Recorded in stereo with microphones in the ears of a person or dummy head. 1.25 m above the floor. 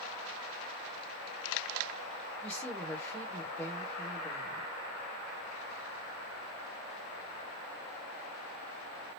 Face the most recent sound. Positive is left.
turn(degrees=5)  # may be behind; listen again after turning